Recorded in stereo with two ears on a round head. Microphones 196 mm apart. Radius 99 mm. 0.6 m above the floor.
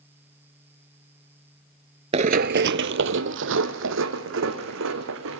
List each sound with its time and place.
2.1 s running footsteps: 30° right (ahead or behind), 0.6 m; by 5.4 s 65° right (ahead or behind), 3.5 m